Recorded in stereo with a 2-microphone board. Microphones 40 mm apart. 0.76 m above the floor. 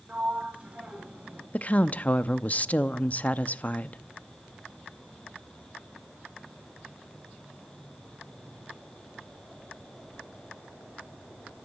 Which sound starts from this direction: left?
A woman speaking, at 1.5 s.